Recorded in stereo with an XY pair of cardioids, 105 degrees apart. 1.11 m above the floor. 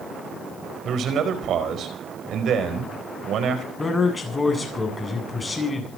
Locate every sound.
0.8 s a man speaking: 65° right, 5 m
3.8 s a man speaking: 20° left, 9 m